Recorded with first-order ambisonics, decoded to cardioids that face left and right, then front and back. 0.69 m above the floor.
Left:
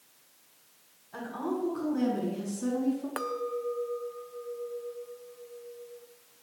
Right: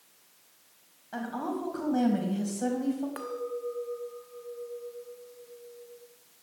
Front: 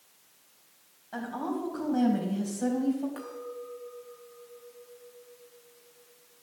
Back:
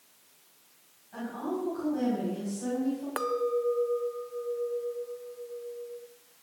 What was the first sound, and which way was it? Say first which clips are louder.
A woman speaking: even, front 1 dB; 50° right.